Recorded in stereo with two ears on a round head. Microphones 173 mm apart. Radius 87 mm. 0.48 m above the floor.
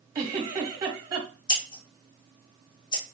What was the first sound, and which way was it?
A giggle, 20° right (ahead or behind).